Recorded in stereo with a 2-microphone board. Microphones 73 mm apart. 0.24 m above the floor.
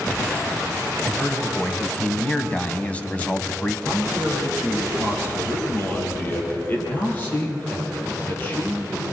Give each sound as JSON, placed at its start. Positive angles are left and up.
{"t": 1.0, "sound": "a man speaking", "side_deg": 20, "distance_m": 1.7}
{"t": 3.9, "sound": "a man speaking", "side_deg": 30, "distance_m": 7.5}